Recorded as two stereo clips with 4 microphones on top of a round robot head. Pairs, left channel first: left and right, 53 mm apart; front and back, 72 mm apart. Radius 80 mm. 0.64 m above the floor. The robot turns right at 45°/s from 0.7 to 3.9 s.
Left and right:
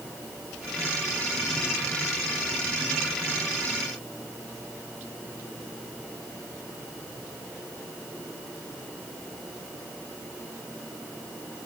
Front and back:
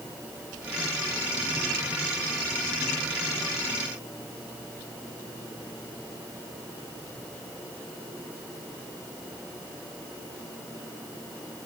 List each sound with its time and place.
Only background noise.